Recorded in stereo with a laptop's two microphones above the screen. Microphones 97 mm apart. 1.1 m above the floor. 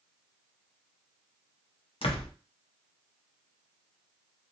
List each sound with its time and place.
2.0 s a door slam: 70° left (ahead or behind), 0.5 m